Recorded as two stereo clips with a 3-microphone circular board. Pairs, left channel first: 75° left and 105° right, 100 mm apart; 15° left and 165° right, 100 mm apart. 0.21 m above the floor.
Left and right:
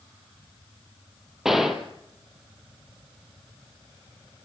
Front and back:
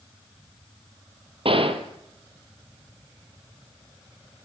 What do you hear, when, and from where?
1.4 s a gunshot: 170° left, 2 m